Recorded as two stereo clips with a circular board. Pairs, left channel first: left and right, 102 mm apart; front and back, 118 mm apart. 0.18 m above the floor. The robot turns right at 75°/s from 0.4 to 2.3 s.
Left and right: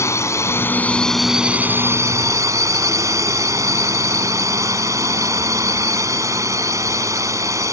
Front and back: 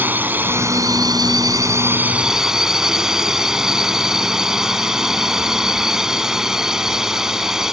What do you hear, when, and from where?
0.0 s a drone: 120° left; by 7.7 s 100° right